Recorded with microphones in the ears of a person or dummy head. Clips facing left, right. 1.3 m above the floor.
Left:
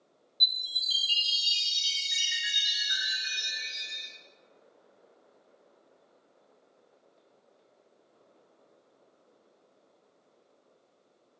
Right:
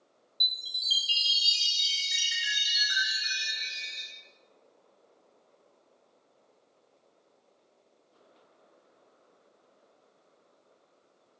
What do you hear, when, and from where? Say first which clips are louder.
0.4 s a chime: left 2 dB; 5° right (ahead or behind), 1.1 m